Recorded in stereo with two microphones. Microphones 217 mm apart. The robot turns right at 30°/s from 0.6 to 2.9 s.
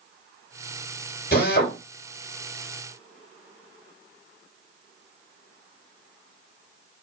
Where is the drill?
45° left (ahead or behind), 3 m; by 1.8 s 55° left (ahead or behind), 3 m.